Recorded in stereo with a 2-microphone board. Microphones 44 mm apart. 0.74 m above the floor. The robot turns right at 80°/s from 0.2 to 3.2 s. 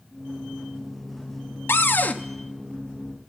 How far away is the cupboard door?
About 0.5 m.